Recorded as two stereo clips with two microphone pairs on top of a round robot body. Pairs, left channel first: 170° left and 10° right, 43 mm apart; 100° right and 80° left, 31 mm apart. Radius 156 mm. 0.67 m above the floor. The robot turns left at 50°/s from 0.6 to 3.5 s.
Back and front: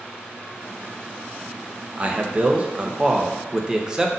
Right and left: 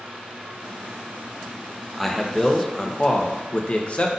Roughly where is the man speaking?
Ahead.